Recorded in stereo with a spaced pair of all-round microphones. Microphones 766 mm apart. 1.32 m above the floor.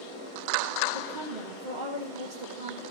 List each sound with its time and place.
0.9 s a woman speaking: 70° right (ahead or behind), 1.7 m